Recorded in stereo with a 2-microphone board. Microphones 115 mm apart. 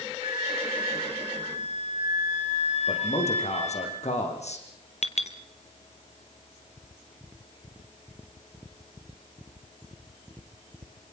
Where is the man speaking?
70° left (ahead or behind), 7.5 m.